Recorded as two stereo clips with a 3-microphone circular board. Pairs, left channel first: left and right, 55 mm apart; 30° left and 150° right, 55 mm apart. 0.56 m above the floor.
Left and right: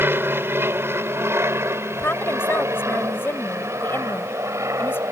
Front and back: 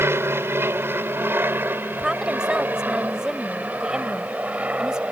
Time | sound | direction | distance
0.0 | an aircraft | 125° right | ?
1.9 | a woman speaking | 135° left | ?